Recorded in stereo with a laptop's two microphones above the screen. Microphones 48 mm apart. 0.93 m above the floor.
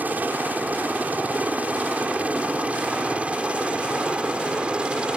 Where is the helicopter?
35° right (ahead or behind); by 5.2 s 20° right (ahead or behind).